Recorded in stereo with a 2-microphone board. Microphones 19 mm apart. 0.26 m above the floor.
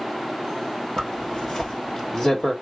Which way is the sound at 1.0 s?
35° left (ahead or behind).